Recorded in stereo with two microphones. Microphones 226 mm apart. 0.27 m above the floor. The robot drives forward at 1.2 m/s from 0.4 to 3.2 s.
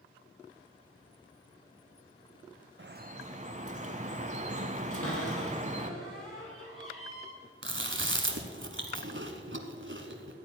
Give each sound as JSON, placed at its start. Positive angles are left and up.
{"t": 2.8, "sound": "dripping", "side_deg": -55, "distance_m": 0.5}
{"t": 4.9, "sound": "a cupboard door", "side_deg": 75, "distance_m": 4.0}
{"t": 7.6, "sound": "chewing", "side_deg": -60, "distance_m": 1.1}